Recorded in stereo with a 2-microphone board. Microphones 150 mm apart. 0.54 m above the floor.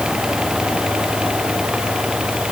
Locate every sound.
Only background noise.